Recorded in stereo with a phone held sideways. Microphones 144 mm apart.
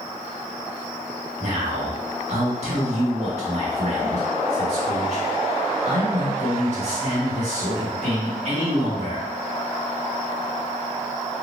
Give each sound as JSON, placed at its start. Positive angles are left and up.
{"t": 1.4, "sound": "a man speaking", "side_deg": -50, "distance_m": 1.6}